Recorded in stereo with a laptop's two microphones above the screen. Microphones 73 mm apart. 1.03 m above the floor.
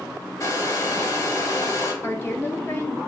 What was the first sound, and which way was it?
A hair dryer, 45° left (ahead or behind).